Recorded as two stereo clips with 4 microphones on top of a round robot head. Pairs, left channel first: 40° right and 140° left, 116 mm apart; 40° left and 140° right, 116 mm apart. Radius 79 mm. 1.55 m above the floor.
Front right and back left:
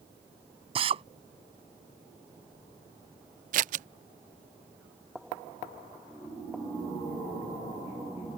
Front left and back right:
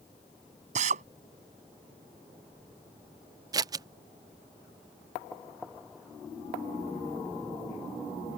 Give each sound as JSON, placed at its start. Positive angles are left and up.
{"t": 0.8, "sound": "a drill", "azimuth_deg": -170}
{"t": 3.5, "sound": "scissors", "azimuth_deg": 160}